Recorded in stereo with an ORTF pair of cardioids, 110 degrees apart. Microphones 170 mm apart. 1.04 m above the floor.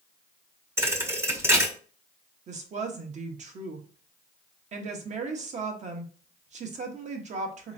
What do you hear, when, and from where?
0.8 s a thud: 15° right, 0.9 m
2.5 s a woman speaking: 45° right, 1.1 m